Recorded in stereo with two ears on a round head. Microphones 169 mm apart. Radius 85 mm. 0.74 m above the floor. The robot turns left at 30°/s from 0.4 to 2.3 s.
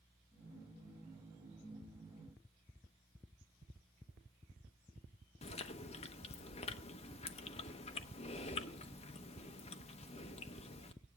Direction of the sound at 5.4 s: 35° left (ahead or behind).